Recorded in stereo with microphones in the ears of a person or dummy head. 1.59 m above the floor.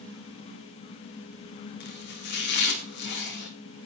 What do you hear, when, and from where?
1.8 s chopping: 55° left (ahead or behind), 2 m